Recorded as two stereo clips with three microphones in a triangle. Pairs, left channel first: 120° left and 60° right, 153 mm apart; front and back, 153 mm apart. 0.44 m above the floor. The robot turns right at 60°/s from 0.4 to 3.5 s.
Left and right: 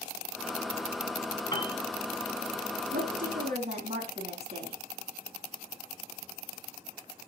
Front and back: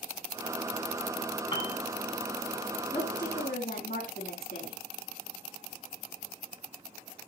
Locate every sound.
1.5 s a piano: 55° left, 3 m; by 1.8 s 70° left, 3 m
2.9 s a woman speaking: 45° right, 5 m; by 4.8 s 10° right, 5 m